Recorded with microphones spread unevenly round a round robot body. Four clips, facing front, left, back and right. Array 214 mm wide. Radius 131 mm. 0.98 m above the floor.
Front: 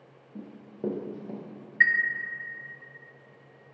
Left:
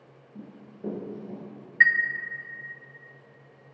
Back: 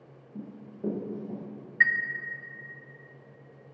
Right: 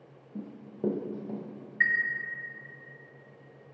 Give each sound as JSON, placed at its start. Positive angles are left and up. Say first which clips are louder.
{"t": 0.3, "sound": "running footsteps", "louder": "right 6 dB, front 1 dB", "azimuth_deg": -65, "distance_m": 1.2}
{"t": 1.8, "sound": "a chime", "louder": "left 6 dB, front 1 dB", "azimuth_deg": 90, "distance_m": 0.7}